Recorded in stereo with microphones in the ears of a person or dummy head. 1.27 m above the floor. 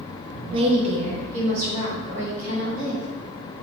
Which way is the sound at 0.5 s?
25° right (ahead or behind).